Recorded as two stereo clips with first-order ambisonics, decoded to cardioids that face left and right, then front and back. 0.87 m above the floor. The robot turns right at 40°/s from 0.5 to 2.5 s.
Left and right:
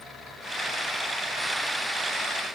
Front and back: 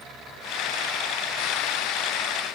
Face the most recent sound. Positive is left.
No sound to turn to.